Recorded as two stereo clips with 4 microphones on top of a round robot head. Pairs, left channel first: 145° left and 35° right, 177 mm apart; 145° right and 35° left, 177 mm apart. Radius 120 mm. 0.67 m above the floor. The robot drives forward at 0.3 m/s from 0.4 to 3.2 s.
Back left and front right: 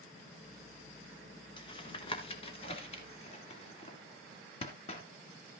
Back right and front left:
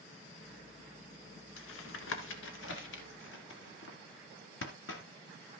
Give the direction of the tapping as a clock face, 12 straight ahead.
5 o'clock.